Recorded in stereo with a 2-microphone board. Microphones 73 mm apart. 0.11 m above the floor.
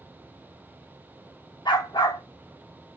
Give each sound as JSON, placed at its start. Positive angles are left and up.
{"t": 1.6, "sound": "a dog barking", "side_deg": 75, "distance_m": 2.5}